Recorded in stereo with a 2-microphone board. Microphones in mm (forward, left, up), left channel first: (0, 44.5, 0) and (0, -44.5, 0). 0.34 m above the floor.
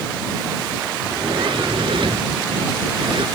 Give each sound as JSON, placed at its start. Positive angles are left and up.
{"t": 1.0, "sound": "a sliding door", "side_deg": -75}